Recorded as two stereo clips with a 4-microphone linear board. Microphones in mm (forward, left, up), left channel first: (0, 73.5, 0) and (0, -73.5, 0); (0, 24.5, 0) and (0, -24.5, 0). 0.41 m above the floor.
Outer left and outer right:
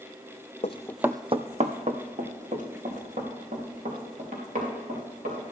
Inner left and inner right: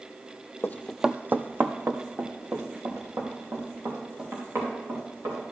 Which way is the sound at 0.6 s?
50° left (ahead or behind).